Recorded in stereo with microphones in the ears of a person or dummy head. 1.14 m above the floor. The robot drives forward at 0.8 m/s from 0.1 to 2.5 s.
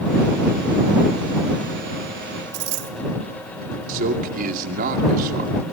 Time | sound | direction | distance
2.5 | a dropped coin | 65° right (ahead or behind) | 2.5 m
3.9 | a man speaking | 50° right (ahead or behind) | 2.5 m